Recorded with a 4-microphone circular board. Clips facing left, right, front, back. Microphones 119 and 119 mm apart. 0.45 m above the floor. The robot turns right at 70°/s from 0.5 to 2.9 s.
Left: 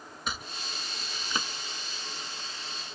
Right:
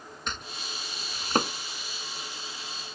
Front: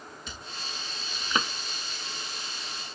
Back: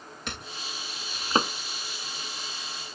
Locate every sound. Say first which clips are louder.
0.3 s chopping: even, back 5 dB; 175° left; by 1.5 s 115° right